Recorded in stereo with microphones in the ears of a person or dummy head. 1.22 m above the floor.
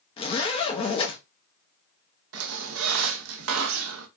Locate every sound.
0.2 s a zipper: 25° left (ahead or behind), 0.7 m
2.3 s a squeak: 70° right (ahead or behind), 0.7 m